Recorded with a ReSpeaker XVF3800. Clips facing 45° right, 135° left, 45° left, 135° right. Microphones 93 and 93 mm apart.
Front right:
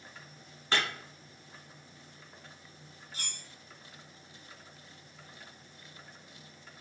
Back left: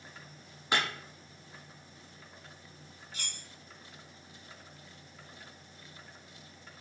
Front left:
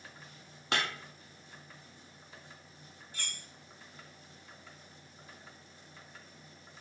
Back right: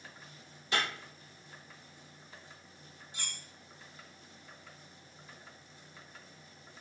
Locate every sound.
0.7 s breaking glass: 55° left, 1.1 m
3.1 s cutlery clinking: 75° right, 0.7 m